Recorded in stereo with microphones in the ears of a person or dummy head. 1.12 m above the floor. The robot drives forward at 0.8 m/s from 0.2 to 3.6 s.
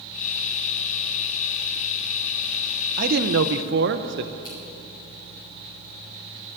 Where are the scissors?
25° left (ahead or behind), 4 m.